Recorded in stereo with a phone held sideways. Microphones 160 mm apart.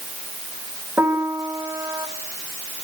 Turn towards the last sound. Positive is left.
turn(degrees=-15)  # may be behind; listen again after turning